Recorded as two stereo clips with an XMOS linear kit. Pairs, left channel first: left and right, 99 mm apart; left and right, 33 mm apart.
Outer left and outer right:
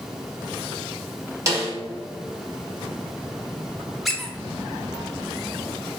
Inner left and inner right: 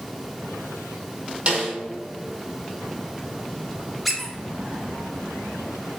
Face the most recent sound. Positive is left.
turn(degrees=0)  # may be behind; listen again after turning